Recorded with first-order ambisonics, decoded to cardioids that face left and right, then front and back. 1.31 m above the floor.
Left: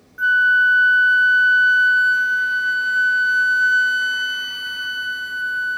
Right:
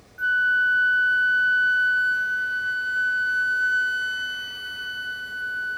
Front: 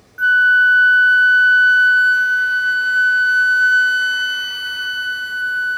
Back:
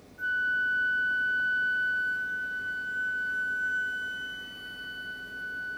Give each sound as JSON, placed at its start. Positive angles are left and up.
{"t": 0.2, "sound": "a flute", "azimuth_deg": 25}